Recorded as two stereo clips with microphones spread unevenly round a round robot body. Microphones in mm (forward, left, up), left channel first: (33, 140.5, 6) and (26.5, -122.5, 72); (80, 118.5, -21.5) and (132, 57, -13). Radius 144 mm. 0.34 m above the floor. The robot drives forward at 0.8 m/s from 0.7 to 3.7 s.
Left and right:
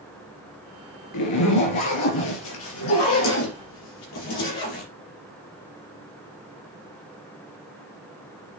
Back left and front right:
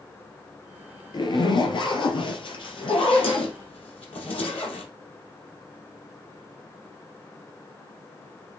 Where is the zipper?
100° left, 3 m; by 4.9 s 135° left, 4 m.